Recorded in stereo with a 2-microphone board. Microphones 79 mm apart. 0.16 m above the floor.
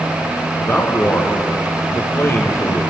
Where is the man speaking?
35° left (ahead or behind), 4 m.